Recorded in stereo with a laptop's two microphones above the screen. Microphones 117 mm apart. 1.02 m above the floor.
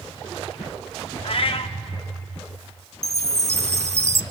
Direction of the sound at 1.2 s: 50° left (ahead or behind).